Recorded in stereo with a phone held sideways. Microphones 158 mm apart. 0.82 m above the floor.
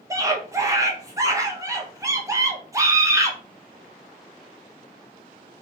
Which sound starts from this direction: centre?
A scream, at 0.1 s.